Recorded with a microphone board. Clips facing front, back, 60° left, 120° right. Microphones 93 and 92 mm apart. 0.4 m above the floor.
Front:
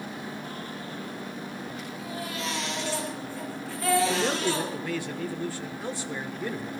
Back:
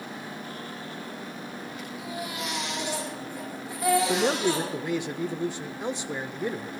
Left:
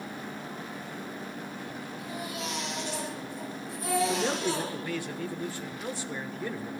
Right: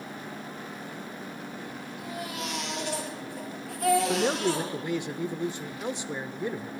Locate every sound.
2.0 s a baby crying: 105° right, 7 m
4.1 s a man speaking: 150° right, 0.8 m